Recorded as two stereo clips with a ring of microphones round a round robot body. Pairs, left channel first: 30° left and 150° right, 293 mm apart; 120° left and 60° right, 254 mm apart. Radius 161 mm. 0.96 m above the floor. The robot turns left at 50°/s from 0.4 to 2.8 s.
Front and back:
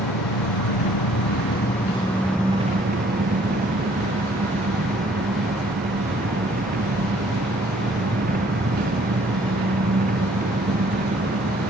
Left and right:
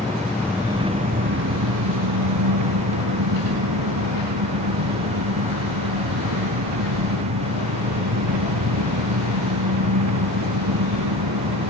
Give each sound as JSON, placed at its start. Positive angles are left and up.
{"t": 0.0, "sound": "an engine running", "azimuth_deg": 35}